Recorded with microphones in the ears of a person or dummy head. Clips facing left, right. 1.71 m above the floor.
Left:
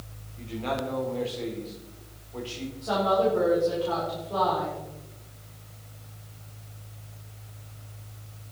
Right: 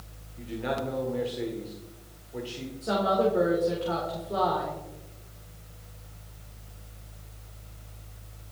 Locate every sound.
0.4 s a man speaking: 20° right (ahead or behind), 4.5 m
2.8 s a woman speaking: 30° right (ahead or behind), 5 m